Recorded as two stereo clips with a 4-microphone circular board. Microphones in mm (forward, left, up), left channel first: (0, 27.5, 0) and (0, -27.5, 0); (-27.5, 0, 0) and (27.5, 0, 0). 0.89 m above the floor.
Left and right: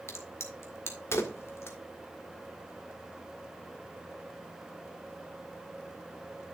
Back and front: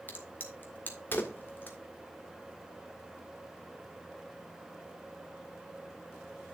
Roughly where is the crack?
Behind left.